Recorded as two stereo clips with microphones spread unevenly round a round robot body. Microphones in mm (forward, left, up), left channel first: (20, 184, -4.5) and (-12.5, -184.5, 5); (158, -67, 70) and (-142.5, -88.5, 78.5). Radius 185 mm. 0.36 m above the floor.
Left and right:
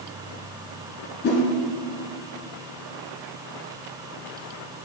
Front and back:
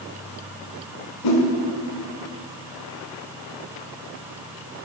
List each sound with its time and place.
1.2 s a whoosh: 20° left, 1.2 m